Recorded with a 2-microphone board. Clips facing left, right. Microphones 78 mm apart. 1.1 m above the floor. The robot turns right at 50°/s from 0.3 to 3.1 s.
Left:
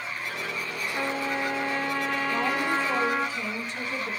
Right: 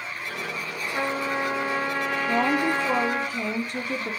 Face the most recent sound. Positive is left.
turn(degrees=-55)